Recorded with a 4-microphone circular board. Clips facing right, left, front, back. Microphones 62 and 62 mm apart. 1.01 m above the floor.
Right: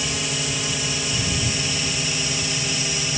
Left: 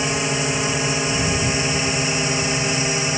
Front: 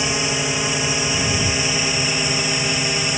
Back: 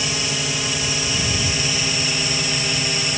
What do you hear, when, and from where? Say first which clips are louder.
0.0 s a drone: left 6 dB, front 3 dB; 60° left; by 3.2 s 70° left